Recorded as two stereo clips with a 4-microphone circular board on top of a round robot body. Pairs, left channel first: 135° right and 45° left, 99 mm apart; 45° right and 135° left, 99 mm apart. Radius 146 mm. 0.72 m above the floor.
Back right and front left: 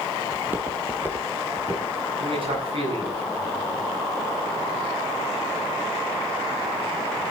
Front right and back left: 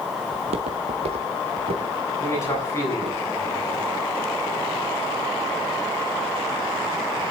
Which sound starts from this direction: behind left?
Footsteps, at 0.3 s.